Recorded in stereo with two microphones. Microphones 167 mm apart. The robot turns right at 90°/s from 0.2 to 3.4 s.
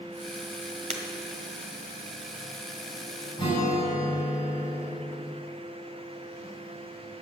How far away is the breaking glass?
About 1.5 m.